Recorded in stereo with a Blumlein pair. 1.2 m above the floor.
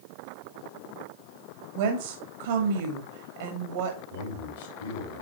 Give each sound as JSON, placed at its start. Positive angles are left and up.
{"t": 1.8, "sound": "a woman speaking", "azimuth_deg": -60, "distance_m": 1.9}
{"t": 4.1, "sound": "a man speaking", "azimuth_deg": 60, "distance_m": 3.5}